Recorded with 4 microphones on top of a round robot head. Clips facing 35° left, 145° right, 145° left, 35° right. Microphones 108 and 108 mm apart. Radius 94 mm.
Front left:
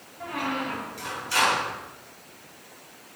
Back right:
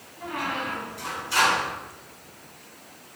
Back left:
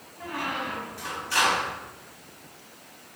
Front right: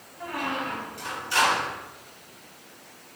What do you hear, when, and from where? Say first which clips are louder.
0.2 s a squeak: front left 1 dB, front right 1 dB; 40° left, 2 m